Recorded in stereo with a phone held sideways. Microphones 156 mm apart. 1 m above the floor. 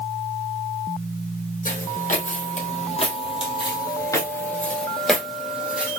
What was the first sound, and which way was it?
Footsteps, 60° left (ahead or behind).